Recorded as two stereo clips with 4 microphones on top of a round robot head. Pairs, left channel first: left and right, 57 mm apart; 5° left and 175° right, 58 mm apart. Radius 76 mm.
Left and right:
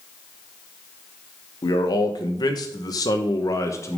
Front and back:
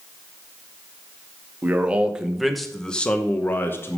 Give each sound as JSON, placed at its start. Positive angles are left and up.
{"t": 1.6, "sound": "a man speaking", "azimuth_deg": 120, "distance_m": 1.3}